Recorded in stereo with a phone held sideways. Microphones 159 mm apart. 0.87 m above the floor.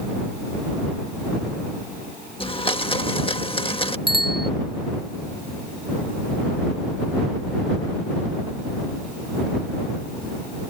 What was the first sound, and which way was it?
A blender, 35° left (ahead or behind).